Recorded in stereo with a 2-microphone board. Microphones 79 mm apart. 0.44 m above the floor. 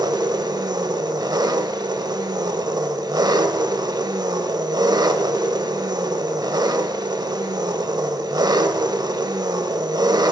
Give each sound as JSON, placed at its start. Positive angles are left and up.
{"t": 0.0, "sound": "an engine running", "side_deg": -65, "distance_m": 0.9}